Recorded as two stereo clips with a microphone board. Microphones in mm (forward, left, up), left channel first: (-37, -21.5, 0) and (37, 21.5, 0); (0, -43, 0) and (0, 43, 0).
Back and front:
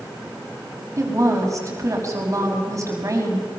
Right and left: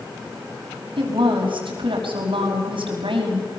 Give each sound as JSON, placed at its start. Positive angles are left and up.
{"t": 1.0, "sound": "a woman speaking", "azimuth_deg": 80, "distance_m": 5.0}